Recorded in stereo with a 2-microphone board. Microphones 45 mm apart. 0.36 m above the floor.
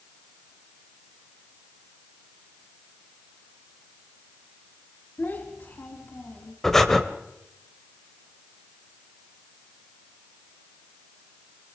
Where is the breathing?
5° left (ahead or behind), 1.5 m.